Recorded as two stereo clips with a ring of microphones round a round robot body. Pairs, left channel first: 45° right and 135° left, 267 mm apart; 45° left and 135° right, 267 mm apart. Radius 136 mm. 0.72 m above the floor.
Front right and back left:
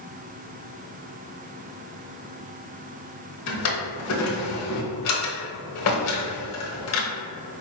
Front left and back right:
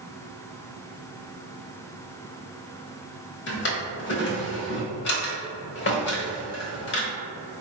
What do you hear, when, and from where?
3.5 s a drawer: 5° right, 0.9 m